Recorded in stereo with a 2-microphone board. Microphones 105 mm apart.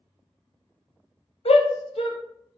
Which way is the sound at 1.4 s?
65° left (ahead or behind).